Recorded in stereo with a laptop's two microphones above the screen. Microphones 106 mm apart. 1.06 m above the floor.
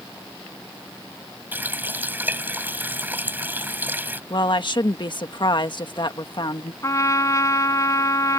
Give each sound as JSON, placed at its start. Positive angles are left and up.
{"t": 1.5, "sound": "a running tap", "side_deg": -20}
{"t": 4.3, "sound": "a woman speaking", "side_deg": 50}
{"t": 6.8, "sound": "a trumpet", "side_deg": 30}